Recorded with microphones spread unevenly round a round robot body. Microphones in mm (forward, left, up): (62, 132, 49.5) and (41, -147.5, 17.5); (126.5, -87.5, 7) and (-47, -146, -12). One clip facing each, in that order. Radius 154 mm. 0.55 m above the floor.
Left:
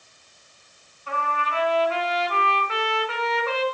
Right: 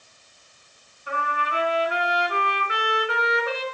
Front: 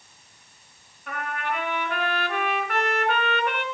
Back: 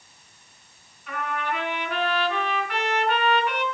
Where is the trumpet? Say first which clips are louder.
Even, back 1 dB; 15° right, 3.5 m.